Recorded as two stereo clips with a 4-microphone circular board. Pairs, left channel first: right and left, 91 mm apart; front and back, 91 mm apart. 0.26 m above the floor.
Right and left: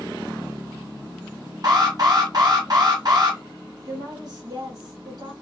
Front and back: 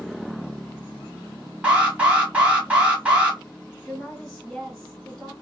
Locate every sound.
1.6 s an alarm: 105° left, 1.0 m
3.9 s a woman speaking: 80° left, 1.8 m